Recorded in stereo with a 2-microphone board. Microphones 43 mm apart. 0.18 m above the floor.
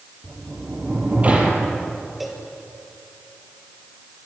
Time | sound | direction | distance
0.2 | a sliding door | 30° right (ahead or behind) | 4.5 m
2.2 | a cowbell | 5° right (ahead or behind) | 3 m